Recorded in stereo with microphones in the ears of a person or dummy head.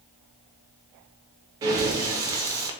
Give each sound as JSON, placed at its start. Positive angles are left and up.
{"t": 1.6, "sound": "breathing", "side_deg": -15, "distance_m": 0.6}